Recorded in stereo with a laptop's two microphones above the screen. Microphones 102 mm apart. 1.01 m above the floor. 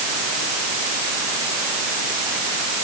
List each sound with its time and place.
Only background noise.